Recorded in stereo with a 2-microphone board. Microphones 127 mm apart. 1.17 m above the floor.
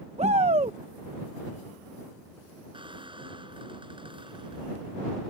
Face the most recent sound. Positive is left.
turn(degrees=-40)  # may be behind; listen again after turning